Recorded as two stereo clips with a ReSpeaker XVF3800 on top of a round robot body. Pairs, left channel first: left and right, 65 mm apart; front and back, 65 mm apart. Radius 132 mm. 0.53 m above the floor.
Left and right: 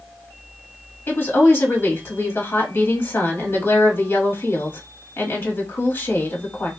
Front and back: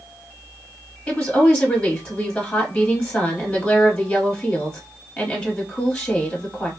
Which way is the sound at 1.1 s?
75° left.